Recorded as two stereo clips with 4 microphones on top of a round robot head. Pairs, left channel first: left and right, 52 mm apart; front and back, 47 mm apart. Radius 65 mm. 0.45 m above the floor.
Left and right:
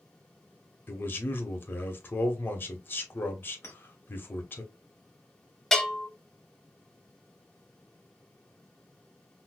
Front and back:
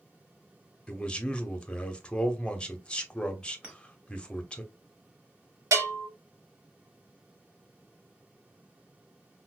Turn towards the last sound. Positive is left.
turn(degrees=170)